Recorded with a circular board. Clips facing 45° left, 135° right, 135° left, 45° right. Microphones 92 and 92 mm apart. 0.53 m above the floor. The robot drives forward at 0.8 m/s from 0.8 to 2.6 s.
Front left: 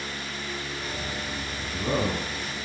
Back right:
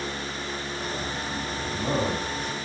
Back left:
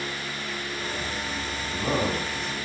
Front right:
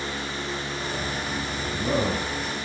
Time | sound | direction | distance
1.6 | a man speaking | 160° right | 3.5 m